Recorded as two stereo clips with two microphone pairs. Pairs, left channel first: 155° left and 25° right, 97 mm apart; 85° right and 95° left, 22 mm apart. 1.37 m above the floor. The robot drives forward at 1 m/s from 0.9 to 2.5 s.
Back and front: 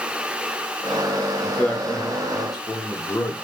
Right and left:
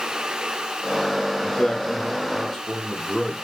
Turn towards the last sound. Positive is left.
turn(degrees=-155)